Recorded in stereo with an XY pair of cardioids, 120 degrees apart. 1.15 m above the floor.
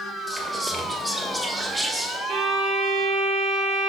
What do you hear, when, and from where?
0.3 s whispering: 10° right, 0.8 m
2.3 s a violin: 65° right, 2 m